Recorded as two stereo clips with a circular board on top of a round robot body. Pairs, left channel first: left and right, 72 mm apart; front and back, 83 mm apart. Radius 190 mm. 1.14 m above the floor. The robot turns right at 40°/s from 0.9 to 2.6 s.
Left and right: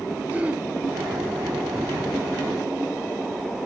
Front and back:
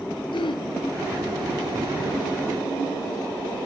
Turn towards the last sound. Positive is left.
turn(degrees=50)